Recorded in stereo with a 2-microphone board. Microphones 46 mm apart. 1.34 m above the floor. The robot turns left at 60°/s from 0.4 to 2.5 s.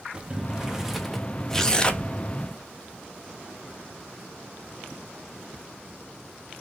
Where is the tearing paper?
160° left, 0.5 m; by 2.1 s 125° left, 0.5 m.